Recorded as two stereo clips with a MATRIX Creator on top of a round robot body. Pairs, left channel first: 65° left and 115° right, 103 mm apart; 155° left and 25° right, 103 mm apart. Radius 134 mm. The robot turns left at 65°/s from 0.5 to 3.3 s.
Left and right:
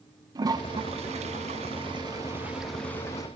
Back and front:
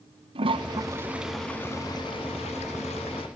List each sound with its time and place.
0.3 s a toilet flushing: 60° right, 0.5 m; by 3.3 s 120° left, 0.5 m